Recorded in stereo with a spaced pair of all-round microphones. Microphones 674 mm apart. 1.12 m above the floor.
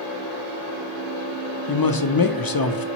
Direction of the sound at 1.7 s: 35° left (ahead or behind).